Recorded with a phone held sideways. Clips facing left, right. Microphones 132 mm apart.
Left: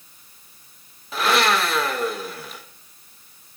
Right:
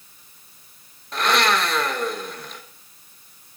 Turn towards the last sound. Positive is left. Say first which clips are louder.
# left 1 dB
turn(degrees=5)  # may be behind; listen again after turning